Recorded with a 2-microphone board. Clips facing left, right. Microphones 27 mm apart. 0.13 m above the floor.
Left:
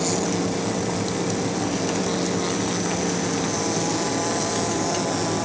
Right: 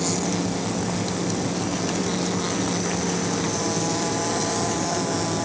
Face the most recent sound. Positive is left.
No sound to turn to.